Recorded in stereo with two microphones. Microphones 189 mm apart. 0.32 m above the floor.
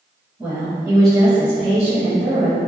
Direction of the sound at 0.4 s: 10° right (ahead or behind).